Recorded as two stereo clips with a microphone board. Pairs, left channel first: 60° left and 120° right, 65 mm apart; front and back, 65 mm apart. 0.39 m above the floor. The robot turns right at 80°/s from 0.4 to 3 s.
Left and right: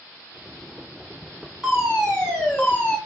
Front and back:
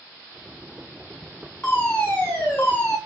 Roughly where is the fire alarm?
Ahead right.